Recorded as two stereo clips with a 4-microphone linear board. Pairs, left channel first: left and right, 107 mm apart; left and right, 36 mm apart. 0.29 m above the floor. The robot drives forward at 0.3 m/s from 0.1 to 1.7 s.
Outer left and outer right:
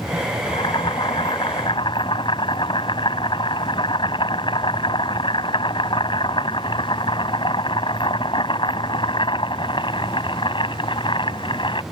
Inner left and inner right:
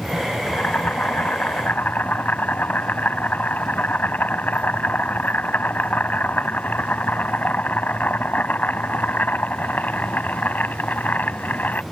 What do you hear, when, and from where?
0.5 s boiling: 50° left (ahead or behind); by 11.8 s 55° left (ahead or behind)